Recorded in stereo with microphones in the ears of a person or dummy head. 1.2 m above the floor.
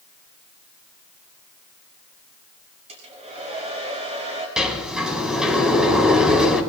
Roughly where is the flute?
No flute in this recording.